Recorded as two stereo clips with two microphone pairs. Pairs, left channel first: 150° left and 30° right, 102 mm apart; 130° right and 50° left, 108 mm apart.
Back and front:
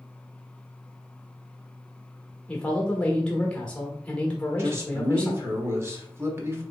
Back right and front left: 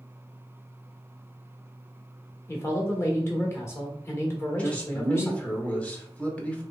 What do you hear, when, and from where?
2.5 s a man speaking: 145° right, 1.1 m
4.6 s a man speaking: 65° right, 1.0 m